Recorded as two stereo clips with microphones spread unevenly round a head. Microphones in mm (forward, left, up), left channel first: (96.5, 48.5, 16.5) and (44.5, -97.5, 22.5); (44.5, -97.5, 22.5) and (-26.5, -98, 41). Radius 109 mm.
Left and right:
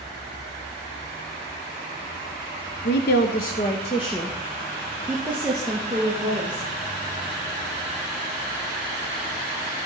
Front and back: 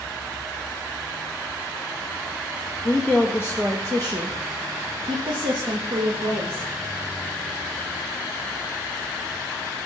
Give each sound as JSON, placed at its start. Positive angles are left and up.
{"t": 2.9, "sound": "a woman speaking", "azimuth_deg": 85, "distance_m": 0.8}